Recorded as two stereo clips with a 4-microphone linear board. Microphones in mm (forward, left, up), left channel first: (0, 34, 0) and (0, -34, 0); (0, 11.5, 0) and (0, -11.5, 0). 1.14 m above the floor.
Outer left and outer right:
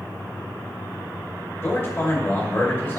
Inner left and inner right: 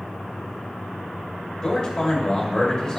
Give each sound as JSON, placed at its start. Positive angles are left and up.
{"t": 1.6, "sound": "a man speaking", "side_deg": 30, "distance_m": 2.0}